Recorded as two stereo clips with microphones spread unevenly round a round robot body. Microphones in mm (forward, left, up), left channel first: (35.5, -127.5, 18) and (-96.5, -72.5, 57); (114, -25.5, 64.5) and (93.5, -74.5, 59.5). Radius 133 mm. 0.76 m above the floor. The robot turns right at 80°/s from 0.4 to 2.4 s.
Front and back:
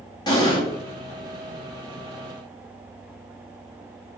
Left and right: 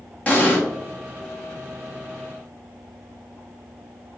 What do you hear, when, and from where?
0.3 s an explosion: 5° left, 1.5 m; by 0.6 s 25° left, 1.5 m